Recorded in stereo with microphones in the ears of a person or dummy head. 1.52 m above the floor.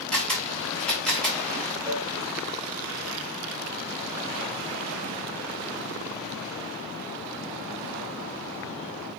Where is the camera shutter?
5° left (ahead or behind), 4 m.